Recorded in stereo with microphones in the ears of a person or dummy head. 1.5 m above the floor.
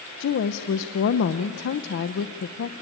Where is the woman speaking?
55° left (ahead or behind), 0.8 m.